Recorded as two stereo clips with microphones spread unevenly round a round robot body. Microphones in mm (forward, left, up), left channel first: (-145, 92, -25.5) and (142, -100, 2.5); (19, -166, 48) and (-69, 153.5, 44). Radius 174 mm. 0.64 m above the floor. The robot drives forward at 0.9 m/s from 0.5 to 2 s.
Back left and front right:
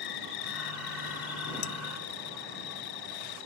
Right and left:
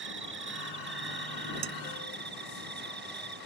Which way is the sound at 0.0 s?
160° left.